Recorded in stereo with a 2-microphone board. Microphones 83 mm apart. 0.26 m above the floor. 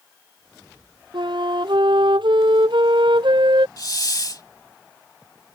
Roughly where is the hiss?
Left.